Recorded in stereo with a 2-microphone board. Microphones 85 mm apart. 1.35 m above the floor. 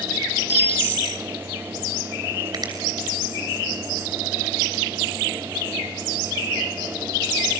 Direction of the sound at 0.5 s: 25° right (ahead or behind).